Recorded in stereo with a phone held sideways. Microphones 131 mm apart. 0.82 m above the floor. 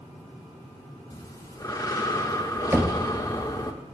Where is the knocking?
15° right (ahead or behind), 0.6 m.